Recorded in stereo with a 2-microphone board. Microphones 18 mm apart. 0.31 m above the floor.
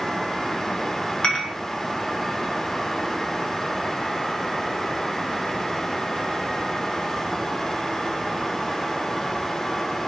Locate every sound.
1.2 s dishes clattering: 65° left (ahead or behind), 2 m